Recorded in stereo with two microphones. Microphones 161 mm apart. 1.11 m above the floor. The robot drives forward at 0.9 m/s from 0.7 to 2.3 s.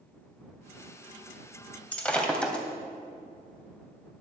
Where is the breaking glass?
5° left (ahead or behind), 1.9 m.